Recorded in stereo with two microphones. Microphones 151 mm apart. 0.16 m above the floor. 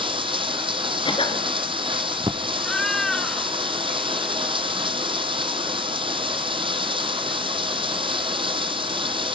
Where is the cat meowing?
5° left (ahead or behind), 1.0 m.